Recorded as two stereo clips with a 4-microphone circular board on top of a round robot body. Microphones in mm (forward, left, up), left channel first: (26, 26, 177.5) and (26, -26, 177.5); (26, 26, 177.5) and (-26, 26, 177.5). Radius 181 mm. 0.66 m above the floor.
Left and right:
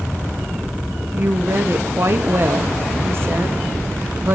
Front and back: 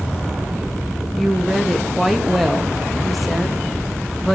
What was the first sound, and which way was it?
A woman speaking, 90° right.